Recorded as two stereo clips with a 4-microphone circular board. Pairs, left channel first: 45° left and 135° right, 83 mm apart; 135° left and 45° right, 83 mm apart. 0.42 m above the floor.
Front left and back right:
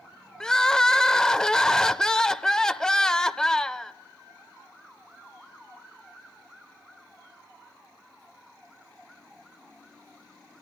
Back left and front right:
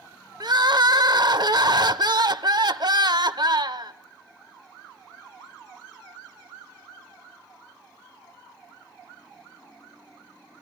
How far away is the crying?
About 0.5 m.